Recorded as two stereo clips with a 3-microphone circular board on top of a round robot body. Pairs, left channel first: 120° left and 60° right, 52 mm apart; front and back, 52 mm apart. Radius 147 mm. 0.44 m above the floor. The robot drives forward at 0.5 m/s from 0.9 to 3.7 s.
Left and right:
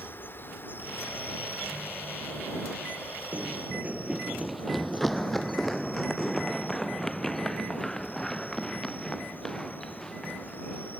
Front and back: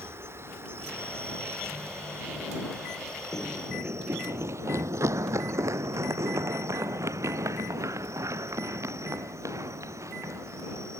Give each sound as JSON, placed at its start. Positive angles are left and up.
{"t": 0.0, "sound": "an insect", "azimuth_deg": 160}
{"t": 3.3, "sound": "running footsteps", "azimuth_deg": -10}